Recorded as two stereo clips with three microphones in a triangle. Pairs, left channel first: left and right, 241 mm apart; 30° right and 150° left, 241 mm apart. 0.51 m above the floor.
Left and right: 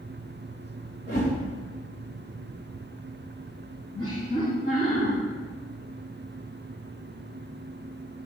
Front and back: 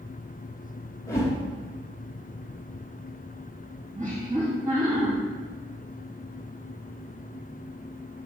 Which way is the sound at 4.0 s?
95° left.